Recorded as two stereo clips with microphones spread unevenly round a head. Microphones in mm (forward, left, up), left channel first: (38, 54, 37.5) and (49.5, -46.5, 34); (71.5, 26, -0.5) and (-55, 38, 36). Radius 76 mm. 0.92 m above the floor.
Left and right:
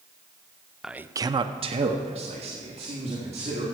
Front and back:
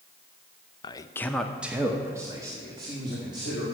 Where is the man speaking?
Straight ahead, 0.6 m; by 3.6 s 120° right, 2.5 m.